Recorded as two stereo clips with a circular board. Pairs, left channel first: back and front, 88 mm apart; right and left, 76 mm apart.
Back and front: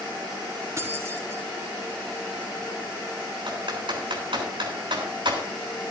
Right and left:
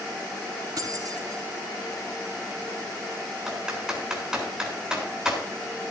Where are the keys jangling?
55° left, 3.5 m.